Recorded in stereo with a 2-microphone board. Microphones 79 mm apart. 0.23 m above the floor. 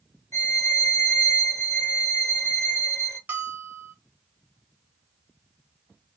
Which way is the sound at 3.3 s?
20° right (ahead or behind).